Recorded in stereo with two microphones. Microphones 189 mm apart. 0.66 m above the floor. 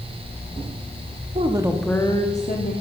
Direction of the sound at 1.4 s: 35° right (ahead or behind).